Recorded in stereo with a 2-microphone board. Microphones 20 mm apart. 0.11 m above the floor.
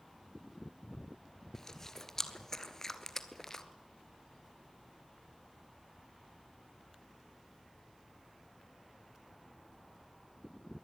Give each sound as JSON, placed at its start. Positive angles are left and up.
{"t": 1.5, "sound": "chewing", "side_deg": 25, "distance_m": 1.4}